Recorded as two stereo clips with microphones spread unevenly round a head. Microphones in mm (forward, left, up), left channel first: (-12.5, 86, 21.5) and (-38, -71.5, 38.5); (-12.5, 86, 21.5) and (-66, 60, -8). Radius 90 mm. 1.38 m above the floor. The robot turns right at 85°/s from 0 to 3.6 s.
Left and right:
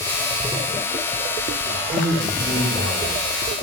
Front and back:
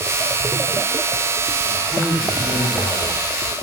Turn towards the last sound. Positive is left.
turn(degrees=120)